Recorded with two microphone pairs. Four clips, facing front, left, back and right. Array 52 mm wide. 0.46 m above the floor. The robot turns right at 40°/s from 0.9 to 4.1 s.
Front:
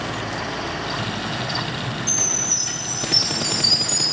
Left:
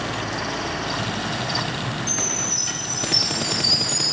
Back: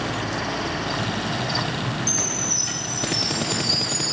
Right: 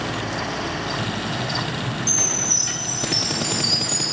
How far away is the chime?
About 8 m.